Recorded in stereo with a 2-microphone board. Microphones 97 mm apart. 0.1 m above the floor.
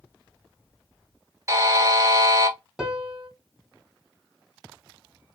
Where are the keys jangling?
No keys jangling in this recording.